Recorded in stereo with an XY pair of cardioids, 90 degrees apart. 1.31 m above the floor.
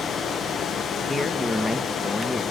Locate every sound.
0.0 s running water: 60° left, 0.9 m
1.1 s a man speaking: 15° left, 1.3 m